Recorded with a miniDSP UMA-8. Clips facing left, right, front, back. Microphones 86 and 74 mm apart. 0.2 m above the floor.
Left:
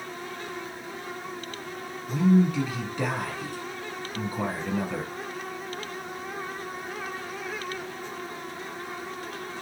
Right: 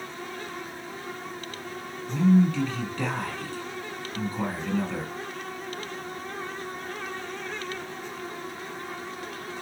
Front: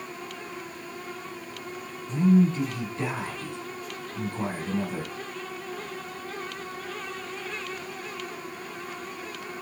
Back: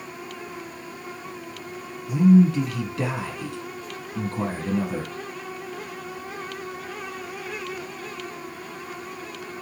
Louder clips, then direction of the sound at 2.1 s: Right 1 dB, back 5 dB; 165° left.